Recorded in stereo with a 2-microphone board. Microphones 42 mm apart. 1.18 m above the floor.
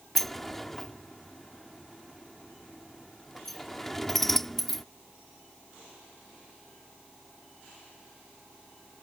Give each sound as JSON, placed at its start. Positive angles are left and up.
{"t": 0.1, "sound": "a sliding door", "side_deg": 5}